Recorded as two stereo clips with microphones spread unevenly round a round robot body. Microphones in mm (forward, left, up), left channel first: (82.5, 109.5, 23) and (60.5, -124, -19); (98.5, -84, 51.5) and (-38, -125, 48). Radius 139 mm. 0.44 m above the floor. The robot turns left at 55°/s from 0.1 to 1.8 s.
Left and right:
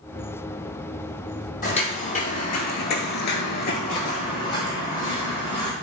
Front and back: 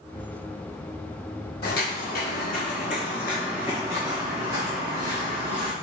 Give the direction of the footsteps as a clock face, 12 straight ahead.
11 o'clock.